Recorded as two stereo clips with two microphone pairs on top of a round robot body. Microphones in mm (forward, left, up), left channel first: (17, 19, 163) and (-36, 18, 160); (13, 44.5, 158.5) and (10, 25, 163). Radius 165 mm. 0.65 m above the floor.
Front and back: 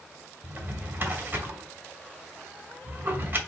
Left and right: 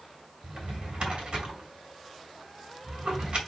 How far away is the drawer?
About 1.1 m.